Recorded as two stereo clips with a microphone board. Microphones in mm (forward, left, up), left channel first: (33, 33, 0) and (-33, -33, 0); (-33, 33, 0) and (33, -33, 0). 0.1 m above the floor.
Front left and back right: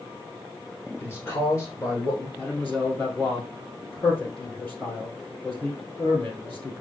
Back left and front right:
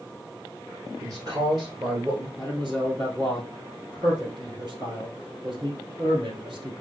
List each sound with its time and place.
1.0 s a man speaking: 10° right, 1.7 m; by 2.3 s 5° right, 2.5 m
2.4 s a man speaking: 20° right, 2.5 m